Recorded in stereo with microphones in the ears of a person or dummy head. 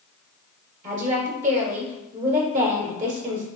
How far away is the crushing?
No crushing in this recording.